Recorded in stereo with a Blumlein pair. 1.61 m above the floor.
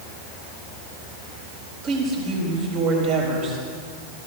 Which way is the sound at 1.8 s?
35° right.